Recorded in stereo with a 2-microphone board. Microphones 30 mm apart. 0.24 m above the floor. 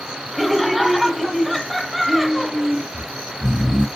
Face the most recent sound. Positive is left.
turn(degrees=-5)  # may be behind; listen again after turning